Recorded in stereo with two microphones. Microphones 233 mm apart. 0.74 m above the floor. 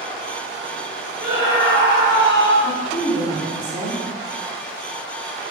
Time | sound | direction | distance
1.2 | a scream | 50° right (ahead or behind) | 2.5 m
2.6 | a woman speaking | 20° left (ahead or behind) | 2.5 m